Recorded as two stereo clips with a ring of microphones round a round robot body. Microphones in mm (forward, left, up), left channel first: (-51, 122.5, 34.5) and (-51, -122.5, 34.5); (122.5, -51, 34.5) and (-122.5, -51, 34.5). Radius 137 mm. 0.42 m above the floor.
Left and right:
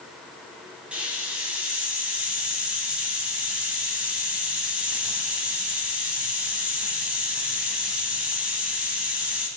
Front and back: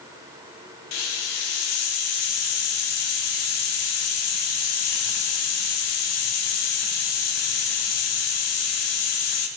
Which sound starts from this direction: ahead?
A hiss, at 0.9 s.